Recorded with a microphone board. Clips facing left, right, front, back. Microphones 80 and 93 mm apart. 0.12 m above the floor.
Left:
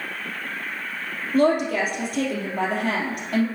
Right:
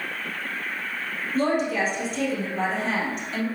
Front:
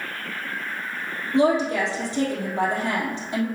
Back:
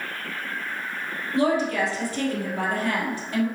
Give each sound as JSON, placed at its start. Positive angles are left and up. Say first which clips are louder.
{"t": 1.3, "sound": "a woman speaking", "louder": "left 4 dB, front 2 dB", "azimuth_deg": 65, "distance_m": 2.5}